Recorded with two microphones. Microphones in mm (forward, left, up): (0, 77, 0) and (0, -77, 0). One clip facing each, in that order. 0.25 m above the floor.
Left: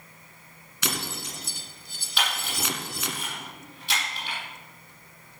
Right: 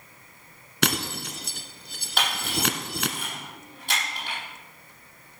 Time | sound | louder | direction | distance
0.8 | breaking glass | right 6 dB | 70° right (ahead or behind) | 1.2 m
2.2 | a camera shutter | right 3 dB | 50° right (ahead or behind) | 7 m